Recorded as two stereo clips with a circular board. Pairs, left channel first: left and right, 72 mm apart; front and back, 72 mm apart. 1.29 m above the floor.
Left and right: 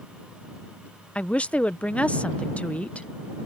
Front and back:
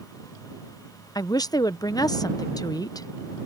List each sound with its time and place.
1.1 s a woman speaking: 20° left